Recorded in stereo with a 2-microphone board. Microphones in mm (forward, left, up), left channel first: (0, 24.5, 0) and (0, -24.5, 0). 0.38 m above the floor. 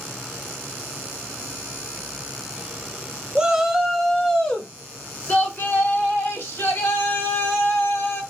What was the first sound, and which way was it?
A shout, 20° right (ahead or behind).